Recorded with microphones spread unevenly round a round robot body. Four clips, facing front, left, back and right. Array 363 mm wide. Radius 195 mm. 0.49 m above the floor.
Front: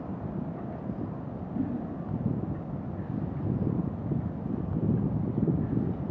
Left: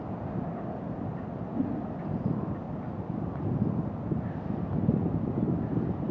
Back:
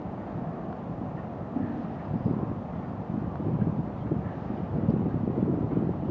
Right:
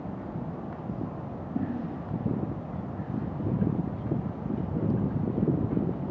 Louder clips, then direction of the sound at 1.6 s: Left 1 dB, even; 110° right.